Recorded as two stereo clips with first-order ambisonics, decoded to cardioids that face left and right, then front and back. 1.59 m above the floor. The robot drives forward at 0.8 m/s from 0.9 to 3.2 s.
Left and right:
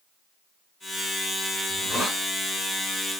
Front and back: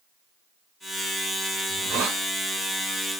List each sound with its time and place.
1.7 s a hiss: 170° right, 1.3 m; by 2.2 s 175° right, 1.7 m